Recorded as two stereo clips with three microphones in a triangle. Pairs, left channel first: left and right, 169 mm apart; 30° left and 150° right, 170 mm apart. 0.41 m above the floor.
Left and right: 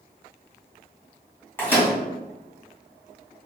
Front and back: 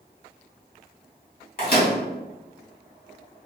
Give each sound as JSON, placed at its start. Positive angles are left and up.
{"t": 1.6, "sound": "a microwave", "azimuth_deg": 15, "distance_m": 1.2}